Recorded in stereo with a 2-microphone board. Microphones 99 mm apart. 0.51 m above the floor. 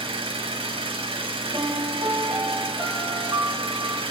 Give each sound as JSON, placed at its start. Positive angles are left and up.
{"t": 0.0, "sound": "an engine running", "side_deg": -70, "distance_m": 0.8}
{"t": 1.5, "sound": "a piano", "side_deg": -35, "distance_m": 1.1}